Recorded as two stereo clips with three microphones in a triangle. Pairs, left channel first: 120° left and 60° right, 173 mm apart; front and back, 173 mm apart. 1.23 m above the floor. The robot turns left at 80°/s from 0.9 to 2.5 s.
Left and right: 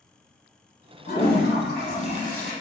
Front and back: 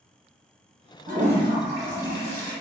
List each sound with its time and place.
1.1 s a toilet flushing: 150° left, 1.2 m; by 2.5 s 35° left, 1.2 m